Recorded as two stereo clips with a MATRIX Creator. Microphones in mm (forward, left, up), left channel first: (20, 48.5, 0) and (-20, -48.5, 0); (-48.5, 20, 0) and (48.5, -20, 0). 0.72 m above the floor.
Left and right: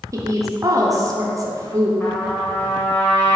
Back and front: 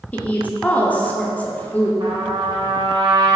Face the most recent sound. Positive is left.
turn(degrees=0)